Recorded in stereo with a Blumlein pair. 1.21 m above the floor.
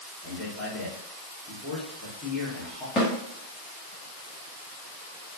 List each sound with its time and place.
0.2 s a man speaking: 5° left, 1.5 m
3.0 s a snare drum: 20° left, 1.0 m